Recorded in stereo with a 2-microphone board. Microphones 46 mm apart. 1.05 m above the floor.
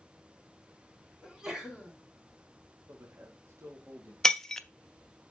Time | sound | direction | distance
1.2 | a sneeze | 15° right (ahead or behind) | 3 m
2.9 | a man speaking | 70° right (ahead or behind) | 1.8 m
4.2 | breaking glass | 10° left (ahead or behind) | 0.6 m